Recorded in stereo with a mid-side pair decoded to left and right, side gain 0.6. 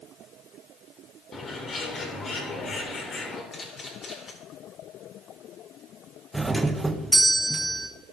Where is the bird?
35° left, 3 m.